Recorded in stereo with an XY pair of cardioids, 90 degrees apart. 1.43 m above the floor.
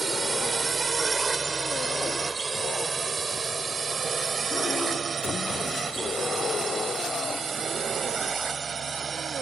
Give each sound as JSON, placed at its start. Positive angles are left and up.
{"t": 0.0, "sound": "a drone", "azimuth_deg": -30}